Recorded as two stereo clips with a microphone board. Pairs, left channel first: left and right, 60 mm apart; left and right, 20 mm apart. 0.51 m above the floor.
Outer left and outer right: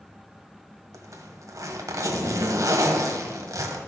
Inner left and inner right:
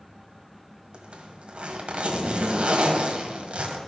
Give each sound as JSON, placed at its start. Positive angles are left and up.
{"t": 0.9, "sound": "a zipper", "side_deg": -75, "distance_m": 1.4}